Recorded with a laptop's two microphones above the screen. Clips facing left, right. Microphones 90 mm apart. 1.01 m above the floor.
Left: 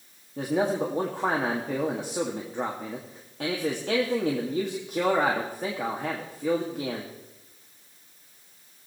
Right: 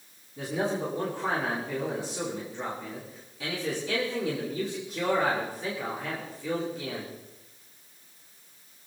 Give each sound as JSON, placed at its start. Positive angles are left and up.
{"t": 0.4, "sound": "a man speaking", "side_deg": 55, "distance_m": 1.7}